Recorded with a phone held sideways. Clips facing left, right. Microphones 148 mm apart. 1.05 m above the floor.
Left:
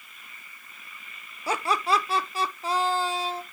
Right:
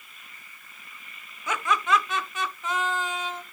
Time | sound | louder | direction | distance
1.5 | laughter | even | 35° left (ahead or behind) | 0.7 m